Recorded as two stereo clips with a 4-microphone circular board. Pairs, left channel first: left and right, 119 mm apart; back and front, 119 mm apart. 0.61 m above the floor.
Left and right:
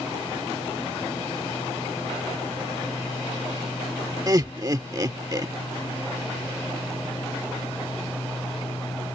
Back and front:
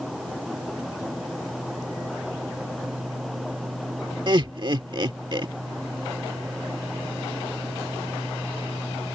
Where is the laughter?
40° right.